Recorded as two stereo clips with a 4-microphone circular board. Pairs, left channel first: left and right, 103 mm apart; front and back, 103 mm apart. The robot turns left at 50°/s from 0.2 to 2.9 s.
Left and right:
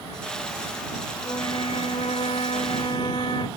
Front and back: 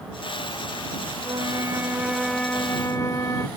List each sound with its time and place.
1.2 s a flute: 140° left; by 3.5 s 55° left